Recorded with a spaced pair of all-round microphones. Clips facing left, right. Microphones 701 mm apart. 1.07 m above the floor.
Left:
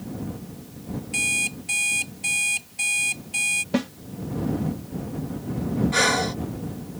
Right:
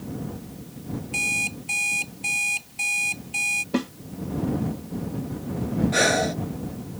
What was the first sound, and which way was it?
An alarm clock, 45° left (ahead or behind).